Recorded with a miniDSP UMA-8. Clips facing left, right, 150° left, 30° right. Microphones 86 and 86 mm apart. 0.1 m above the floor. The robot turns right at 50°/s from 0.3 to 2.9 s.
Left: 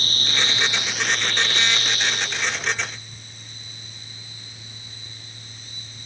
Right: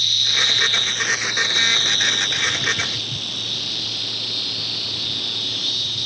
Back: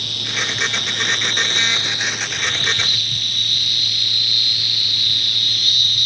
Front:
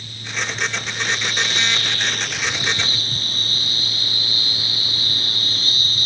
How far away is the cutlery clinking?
I don't hear cutlery clinking.